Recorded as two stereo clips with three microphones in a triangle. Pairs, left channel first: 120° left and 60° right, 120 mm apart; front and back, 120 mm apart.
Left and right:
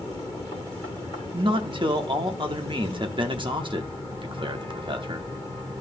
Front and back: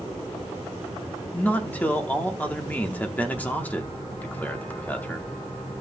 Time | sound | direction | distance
1.3 | a man speaking | 70° right | 0.9 m